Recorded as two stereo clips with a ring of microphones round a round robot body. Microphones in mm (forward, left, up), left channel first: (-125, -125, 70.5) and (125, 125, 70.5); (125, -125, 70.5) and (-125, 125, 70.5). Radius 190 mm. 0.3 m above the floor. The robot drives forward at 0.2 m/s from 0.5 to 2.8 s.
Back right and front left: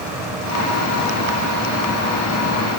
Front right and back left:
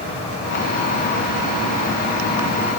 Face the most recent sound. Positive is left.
No sound to turn to.